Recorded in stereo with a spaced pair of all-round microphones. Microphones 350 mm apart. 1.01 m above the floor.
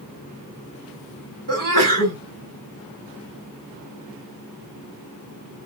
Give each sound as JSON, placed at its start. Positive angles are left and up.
{"t": 1.5, "sound": "a sneeze", "side_deg": -60, "distance_m": 3.0}